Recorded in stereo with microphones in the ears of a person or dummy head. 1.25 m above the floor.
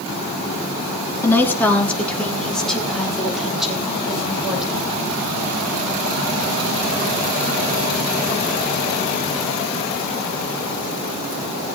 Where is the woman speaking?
15° left (ahead or behind), 2.5 m; by 4.9 s 5° right (ahead or behind), 7 m.